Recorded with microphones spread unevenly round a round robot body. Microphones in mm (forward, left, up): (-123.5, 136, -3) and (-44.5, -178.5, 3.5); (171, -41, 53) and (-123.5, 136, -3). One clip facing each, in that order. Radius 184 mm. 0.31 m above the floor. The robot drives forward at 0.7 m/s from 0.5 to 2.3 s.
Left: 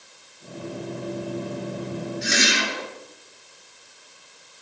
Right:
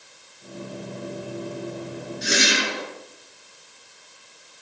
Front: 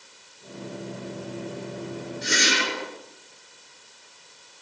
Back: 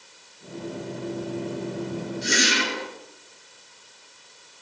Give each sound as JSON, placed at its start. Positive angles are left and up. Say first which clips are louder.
{"t": 2.2, "sound": "a whoosh", "louder": "right 4 dB, back 1 dB", "azimuth_deg": -120, "distance_m": 4.5}